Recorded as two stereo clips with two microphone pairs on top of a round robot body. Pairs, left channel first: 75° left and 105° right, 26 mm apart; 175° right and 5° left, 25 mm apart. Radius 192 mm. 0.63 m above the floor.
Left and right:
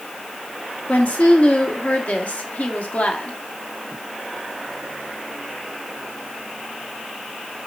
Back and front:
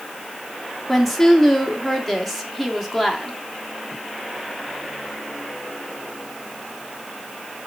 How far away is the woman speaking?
About 2 m.